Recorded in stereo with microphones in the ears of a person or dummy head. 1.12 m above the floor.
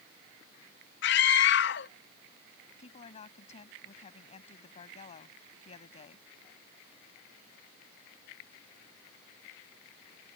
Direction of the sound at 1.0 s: 60° left (ahead or behind).